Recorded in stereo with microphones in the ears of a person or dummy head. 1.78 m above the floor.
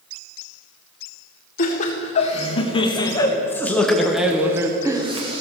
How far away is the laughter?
About 1.8 m.